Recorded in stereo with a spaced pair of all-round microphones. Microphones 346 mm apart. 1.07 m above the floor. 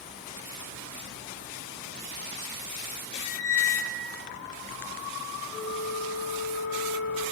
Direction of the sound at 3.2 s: 60° right (ahead or behind).